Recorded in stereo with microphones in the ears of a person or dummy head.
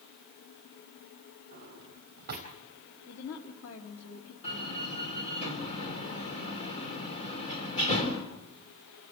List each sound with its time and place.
1.5 s a drawer: 50° right (ahead or behind), 4 m
3.1 s a woman speaking: 80° left, 2.5 m
4.4 s a door slam: 30° left (ahead or behind), 4 m